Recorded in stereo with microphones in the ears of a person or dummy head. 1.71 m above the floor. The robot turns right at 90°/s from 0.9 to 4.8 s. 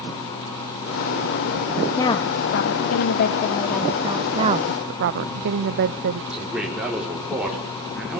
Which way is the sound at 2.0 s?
15° left.